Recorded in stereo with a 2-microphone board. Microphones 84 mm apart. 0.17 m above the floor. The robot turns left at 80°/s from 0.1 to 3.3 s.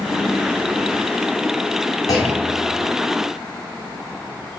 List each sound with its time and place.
2.1 s a clunk: 45° left, 1.6 m; by 2.9 s 15° right, 1.6 m